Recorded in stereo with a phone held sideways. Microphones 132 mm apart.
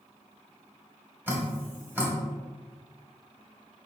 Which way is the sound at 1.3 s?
15° right (ahead or behind).